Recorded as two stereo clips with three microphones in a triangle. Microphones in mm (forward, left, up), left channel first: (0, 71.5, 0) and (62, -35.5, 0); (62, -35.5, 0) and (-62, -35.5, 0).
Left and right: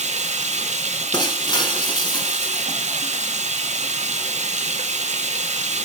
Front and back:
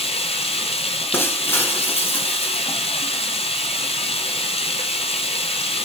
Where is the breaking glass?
70° left, 1.6 m.